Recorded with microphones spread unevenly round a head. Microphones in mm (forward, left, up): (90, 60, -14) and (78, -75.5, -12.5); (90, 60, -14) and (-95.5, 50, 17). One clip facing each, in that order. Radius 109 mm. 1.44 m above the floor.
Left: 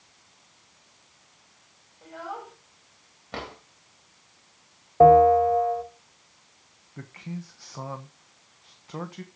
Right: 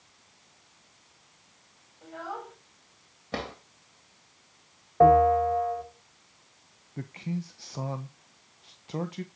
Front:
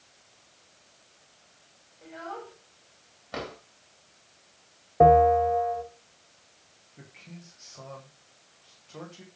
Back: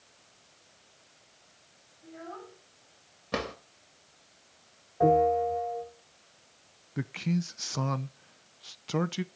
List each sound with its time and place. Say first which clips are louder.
2.0 s a child speaking: left 1 dB, front 3 dB; 5° right, 7 m
3.3 s a drawer: right 2 dB, back 3 dB; 155° right, 3 m
5.0 s a bell: left 4 dB, front 5 dB; 15° left, 4.5 m
7.0 s a man speaking: right 4 dB, back 18 dB; 170° right, 0.9 m